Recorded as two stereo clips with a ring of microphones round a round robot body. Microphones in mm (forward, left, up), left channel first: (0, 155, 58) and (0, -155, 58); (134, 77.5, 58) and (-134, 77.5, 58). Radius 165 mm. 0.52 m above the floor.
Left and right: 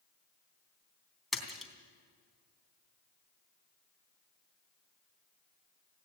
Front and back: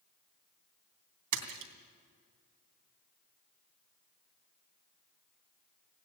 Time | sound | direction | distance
1.3 | a splash | straight behind | 3 m